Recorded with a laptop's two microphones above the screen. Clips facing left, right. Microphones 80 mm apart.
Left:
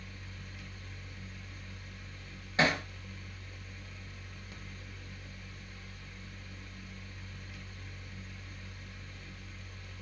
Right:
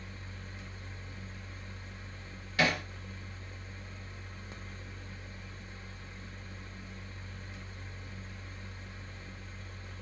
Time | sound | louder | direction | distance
0.0 | a fan | right 2 dB | 30° right (ahead or behind) | 0.7 m
2.6 | hammering | left 1 dB | 30° left (ahead or behind) | 0.9 m